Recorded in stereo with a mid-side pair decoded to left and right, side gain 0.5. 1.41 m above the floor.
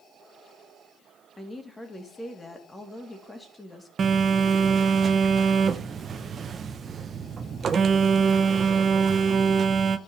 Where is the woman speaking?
15° left, 2.5 m.